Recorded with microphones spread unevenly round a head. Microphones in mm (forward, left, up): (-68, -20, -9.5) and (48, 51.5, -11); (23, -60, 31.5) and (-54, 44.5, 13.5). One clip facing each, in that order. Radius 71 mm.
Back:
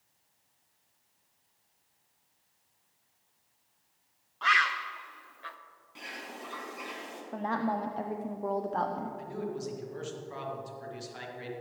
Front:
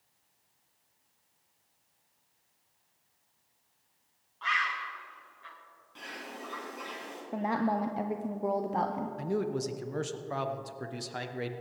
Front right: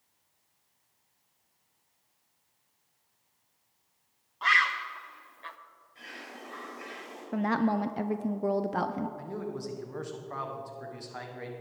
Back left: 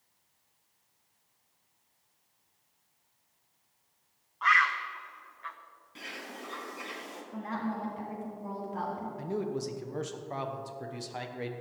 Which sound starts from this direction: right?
A bird, at 4.4 s.